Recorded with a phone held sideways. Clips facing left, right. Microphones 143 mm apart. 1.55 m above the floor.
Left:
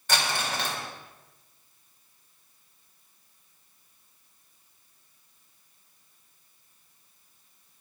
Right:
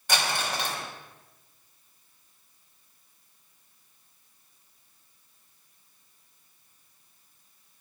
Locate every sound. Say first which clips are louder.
0.1 s crumpling: even; 10° right (ahead or behind), 2.5 m